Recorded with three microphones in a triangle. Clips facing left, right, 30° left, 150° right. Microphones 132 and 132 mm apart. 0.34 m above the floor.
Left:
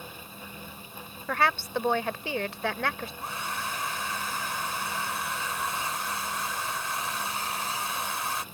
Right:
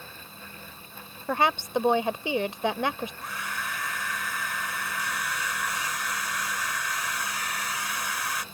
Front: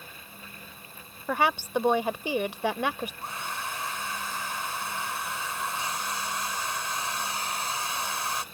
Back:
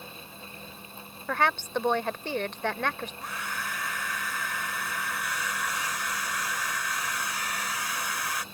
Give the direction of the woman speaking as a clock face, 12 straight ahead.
1 o'clock.